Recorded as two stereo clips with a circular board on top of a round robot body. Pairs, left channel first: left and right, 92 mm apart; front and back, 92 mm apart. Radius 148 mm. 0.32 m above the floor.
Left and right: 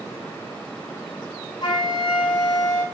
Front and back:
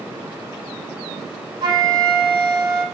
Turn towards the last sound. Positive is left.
turn(degrees=135)